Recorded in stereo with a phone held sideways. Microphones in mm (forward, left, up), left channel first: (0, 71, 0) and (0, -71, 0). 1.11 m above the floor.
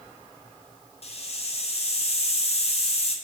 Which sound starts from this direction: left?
A hiss, at 1.0 s.